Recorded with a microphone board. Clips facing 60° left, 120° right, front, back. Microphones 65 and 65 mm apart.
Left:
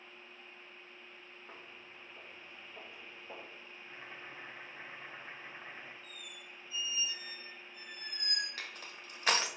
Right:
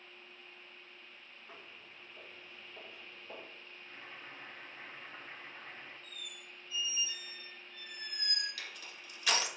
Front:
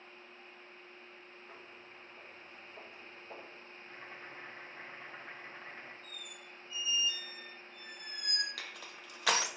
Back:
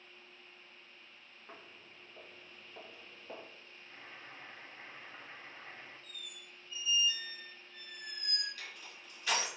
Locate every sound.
1.5 s footsteps: 120° left, 1.9 m; by 3.5 s 140° left, 3 m
3.8 s boiling: 10° left, 1.4 m
6.0 s a squeak: 5° left, 1.4 m
8.6 s crushing: 5° left, 0.6 m